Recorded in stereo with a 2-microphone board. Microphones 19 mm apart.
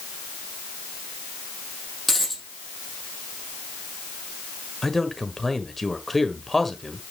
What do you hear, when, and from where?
2.1 s a dropped coin: 10° left (ahead or behind), 4.5 m
4.8 s a man speaking: 10° left (ahead or behind), 1.5 m